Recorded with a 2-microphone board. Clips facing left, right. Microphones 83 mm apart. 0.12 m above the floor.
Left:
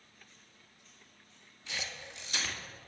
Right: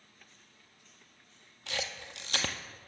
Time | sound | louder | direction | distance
1.7 | a camera shutter | right 4 dB | 75° right (ahead or behind) | 0.7 m